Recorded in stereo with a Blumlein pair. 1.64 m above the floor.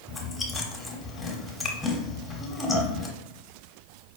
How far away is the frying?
No frying in this recording.